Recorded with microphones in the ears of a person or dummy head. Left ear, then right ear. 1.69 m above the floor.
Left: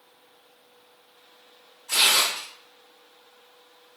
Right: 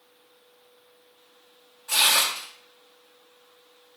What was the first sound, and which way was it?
Tearing paper, 40° right (ahead or behind).